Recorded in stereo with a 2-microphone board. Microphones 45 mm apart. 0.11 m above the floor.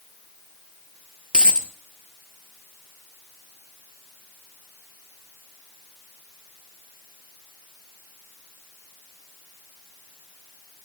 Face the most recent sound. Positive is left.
turn(degrees=-20)  # may be behind; listen again after turning